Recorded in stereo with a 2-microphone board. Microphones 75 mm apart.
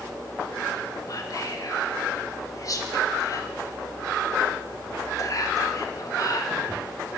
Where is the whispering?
45° left (ahead or behind), 0.8 m.